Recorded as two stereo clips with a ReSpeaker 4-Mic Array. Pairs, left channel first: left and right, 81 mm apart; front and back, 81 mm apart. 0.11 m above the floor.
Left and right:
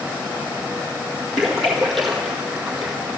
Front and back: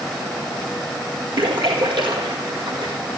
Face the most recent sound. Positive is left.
turn(degrees=180)